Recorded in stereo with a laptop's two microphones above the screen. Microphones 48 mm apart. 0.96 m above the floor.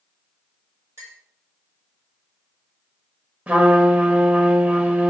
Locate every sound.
1.0 s a clink: 65° right (ahead or behind), 1.2 m
3.5 s a trumpet: 30° right (ahead or behind), 0.7 m